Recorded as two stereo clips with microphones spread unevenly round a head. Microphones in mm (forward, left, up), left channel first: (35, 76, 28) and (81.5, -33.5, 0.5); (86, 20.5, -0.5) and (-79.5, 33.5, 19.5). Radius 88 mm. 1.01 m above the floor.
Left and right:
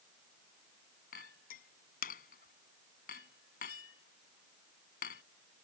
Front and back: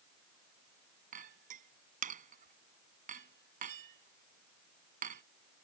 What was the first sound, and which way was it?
A clink, 135° left.